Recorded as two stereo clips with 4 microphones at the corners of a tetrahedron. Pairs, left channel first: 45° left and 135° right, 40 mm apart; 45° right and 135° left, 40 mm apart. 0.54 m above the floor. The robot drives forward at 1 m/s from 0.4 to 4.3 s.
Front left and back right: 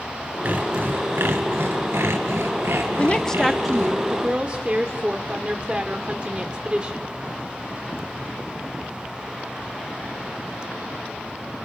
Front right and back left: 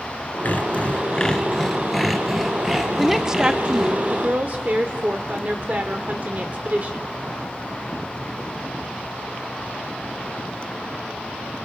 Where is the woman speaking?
35° left, 0.8 m; by 7.1 s 165° left, 1.3 m.